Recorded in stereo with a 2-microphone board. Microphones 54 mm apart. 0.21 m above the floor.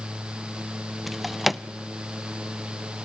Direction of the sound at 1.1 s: Centre (ahead or behind).